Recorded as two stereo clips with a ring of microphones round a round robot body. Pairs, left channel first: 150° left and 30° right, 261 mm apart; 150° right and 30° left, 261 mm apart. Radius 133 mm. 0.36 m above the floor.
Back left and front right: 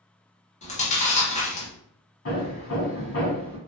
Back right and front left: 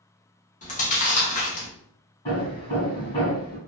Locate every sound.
0.6 s chewing: 175° right, 0.8 m
2.2 s hammering: 150° left, 1.4 m